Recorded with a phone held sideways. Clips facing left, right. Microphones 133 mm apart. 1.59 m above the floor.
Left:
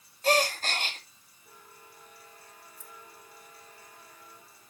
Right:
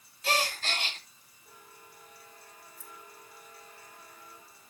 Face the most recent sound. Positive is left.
turn(degrees=15)  # may be behind; listen again after turning